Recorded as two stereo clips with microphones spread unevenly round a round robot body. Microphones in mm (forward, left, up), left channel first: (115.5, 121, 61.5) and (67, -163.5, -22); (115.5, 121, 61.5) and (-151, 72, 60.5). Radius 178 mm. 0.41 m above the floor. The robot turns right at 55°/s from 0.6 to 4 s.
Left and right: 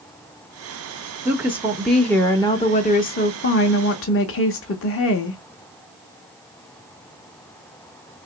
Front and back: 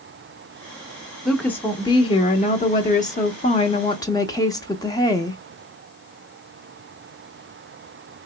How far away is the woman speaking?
About 0.8 m.